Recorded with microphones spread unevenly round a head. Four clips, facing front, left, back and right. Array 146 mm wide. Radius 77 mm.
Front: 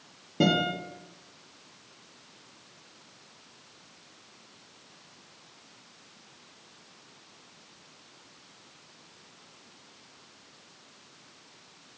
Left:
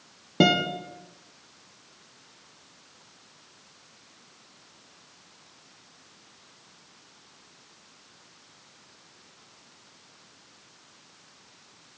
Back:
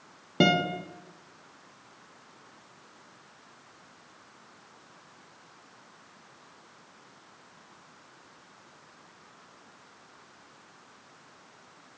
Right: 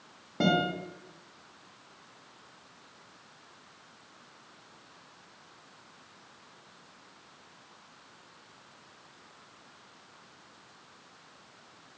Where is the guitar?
115° left, 1.2 m.